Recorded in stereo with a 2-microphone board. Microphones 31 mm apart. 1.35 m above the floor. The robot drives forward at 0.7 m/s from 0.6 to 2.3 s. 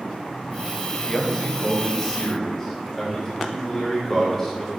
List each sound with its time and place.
1.1 s a man speaking: 20° left (ahead or behind), 1.5 m; by 4.7 s 10° left (ahead or behind), 2.5 m